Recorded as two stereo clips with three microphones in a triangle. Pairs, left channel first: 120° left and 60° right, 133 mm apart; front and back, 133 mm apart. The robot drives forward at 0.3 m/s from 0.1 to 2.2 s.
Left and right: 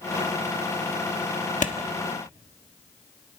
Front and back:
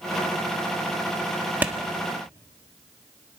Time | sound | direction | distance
1.6 | a clap | 105° left | 1.2 m